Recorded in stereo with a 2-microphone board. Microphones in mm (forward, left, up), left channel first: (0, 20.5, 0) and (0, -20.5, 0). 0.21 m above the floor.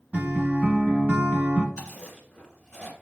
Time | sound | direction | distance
0.1 | a guitar | 35° right (ahead or behind) | 0.9 m
1.8 | chewing | 20° left (ahead or behind) | 1.3 m